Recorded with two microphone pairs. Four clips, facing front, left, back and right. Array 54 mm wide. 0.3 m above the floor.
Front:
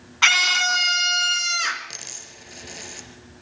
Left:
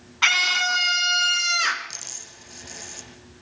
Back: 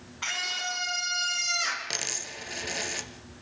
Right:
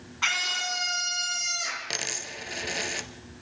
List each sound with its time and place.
0.2 s a scream: 20° left, 2 m; by 1.9 s 70° left, 3.5 m
1.9 s a dropped coin: 110° right, 2 m